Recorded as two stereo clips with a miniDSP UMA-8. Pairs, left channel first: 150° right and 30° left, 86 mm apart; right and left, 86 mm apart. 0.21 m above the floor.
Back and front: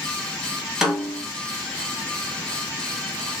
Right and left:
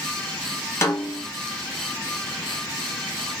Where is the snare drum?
50° right, 1.0 m.